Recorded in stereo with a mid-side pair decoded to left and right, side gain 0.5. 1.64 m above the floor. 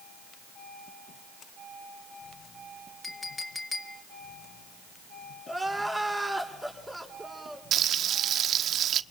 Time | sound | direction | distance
3.0 | a clink | 20° left | 2.5 m
5.5 | crying | straight ahead | 5.5 m
7.7 | frying | 55° right | 1.1 m